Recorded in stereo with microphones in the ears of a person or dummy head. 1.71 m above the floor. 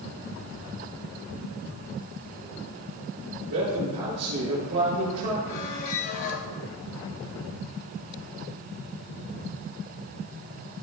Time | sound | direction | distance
3.4 | a man speaking | 65° right (ahead or behind) | 4 m
5.5 | a squeak | 45° left (ahead or behind) | 0.8 m